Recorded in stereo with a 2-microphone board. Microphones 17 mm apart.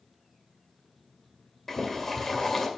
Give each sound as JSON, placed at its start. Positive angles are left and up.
{"t": 1.7, "sound": "boiling", "side_deg": 20, "distance_m": 2.5}